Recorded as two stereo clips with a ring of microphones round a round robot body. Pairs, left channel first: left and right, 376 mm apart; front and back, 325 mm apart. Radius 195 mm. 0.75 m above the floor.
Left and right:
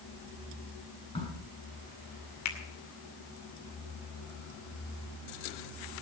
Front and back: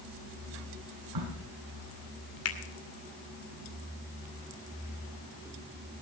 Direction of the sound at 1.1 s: 165° left.